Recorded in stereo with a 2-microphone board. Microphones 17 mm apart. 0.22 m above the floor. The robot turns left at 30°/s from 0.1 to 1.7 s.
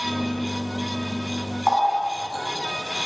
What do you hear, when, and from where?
1.7 s a running tap: 50° left (ahead or behind), 1.3 m